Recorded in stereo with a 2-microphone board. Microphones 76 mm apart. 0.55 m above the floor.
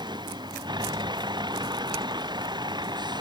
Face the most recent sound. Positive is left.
turn(degrees=-70)  # may be behind; listen again after turning